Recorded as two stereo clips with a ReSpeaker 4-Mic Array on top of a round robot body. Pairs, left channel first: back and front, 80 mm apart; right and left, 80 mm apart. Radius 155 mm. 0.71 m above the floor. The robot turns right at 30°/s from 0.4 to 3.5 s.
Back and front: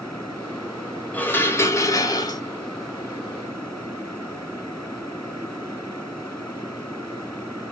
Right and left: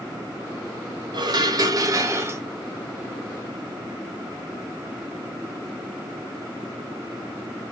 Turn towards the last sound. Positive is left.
turn(degrees=180)